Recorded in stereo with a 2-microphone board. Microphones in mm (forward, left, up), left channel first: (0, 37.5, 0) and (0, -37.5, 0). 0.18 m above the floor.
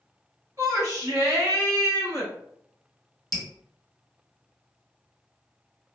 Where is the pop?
No pop in this recording.